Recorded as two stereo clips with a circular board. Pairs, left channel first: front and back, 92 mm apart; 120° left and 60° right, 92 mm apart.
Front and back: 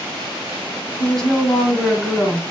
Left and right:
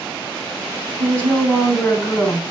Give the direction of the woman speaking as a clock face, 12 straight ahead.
10 o'clock.